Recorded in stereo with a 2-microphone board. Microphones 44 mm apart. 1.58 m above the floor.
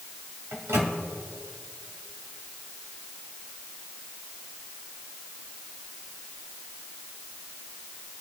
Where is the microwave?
85° right, 2 m.